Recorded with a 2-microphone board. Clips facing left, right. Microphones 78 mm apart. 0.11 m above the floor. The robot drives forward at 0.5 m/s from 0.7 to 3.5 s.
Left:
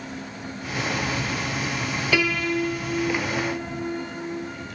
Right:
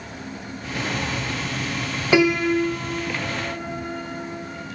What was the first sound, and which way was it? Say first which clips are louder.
A piano: right 7 dB; 20° right (ahead or behind).